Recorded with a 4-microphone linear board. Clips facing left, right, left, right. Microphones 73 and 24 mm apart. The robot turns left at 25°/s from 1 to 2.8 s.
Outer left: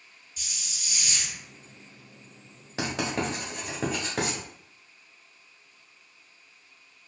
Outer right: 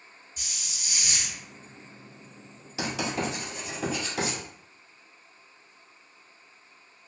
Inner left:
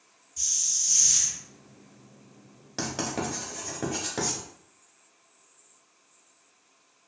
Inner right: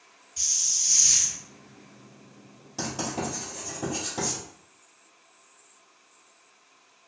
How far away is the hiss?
About 0.7 m.